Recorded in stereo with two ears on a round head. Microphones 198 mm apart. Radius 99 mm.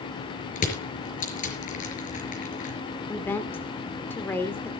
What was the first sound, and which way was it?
Crushing, 35° left (ahead or behind).